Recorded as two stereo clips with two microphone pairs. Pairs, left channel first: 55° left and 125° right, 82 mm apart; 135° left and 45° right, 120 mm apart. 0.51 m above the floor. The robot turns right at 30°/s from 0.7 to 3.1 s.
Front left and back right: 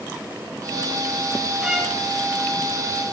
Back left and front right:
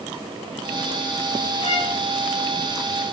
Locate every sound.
1.6 s a violin: 150° left, 3.5 m; by 1.9 s 160° left, 3.5 m